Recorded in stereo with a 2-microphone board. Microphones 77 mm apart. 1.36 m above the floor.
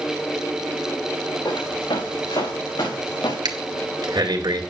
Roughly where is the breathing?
Right.